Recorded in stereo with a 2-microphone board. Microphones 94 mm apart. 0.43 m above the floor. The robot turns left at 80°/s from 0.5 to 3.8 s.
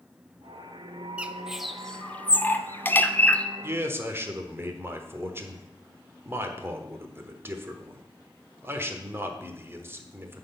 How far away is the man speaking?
About 1.0 m.